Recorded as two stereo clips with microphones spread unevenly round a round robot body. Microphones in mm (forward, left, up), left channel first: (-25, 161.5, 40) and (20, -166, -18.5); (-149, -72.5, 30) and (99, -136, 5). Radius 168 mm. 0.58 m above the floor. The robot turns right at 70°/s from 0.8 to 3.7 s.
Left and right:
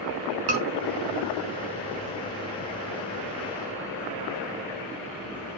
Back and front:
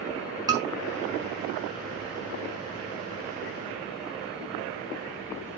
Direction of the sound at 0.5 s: 90° right.